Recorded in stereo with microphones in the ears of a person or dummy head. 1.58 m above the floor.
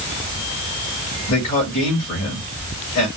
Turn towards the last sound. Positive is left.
turn(degrees=50)  # may be behind; listen again after turning